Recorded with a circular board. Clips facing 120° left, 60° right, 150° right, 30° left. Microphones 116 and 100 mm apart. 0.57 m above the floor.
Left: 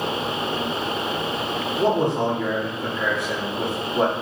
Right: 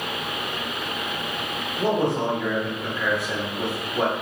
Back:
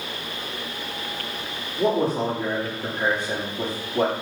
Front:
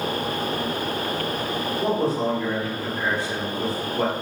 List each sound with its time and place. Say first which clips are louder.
1.8 s a man speaking: left 2 dB, back 2 dB; 165° left, 1.0 m